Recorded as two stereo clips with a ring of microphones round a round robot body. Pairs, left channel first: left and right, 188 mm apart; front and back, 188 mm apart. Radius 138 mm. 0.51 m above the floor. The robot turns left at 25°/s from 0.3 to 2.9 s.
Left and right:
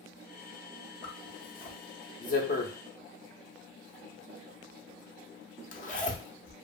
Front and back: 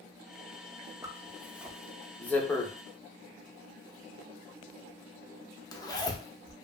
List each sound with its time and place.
1.0 s a zipper: 110° left, 0.6 m; by 6.5 s 65° left, 0.6 m